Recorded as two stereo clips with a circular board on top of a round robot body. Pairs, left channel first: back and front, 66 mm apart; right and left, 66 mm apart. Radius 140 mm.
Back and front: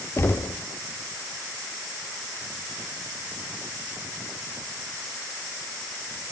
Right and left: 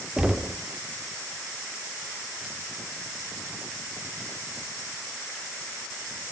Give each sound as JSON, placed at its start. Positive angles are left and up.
{"t": 0.2, "sound": "knocking", "azimuth_deg": 165, "distance_m": 1.1}